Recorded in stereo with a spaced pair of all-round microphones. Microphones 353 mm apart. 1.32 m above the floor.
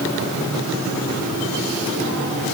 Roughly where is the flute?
I don't hear a flute.